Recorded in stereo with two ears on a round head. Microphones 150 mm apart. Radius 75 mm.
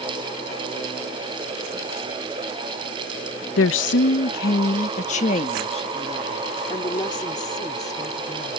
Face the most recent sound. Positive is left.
turn(degrees=20)  # may be behind; listen again after turning